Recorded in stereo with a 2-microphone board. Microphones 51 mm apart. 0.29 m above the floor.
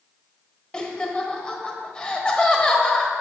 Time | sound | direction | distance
0.7 | laughter | 20° left (ahead or behind) | 1.3 m